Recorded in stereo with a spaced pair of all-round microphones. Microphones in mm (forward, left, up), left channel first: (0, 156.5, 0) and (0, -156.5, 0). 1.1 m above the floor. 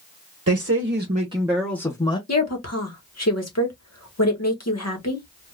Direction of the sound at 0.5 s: 50° right (ahead or behind).